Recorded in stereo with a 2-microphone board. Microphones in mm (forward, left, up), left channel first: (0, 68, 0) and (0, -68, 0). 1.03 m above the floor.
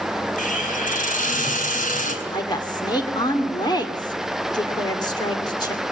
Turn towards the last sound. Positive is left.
turn(degrees=30)  # may be behind; listen again after turning